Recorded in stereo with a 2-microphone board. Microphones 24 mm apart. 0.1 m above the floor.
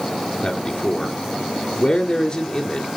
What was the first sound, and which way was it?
A man speaking, 30° left (ahead or behind).